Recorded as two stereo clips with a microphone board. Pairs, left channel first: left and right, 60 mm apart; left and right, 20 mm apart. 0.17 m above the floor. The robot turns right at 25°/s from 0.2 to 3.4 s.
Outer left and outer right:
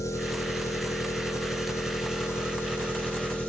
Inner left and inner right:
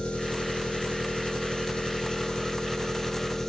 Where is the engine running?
75° left, 1.1 m; by 3.5 s 155° left, 1.1 m.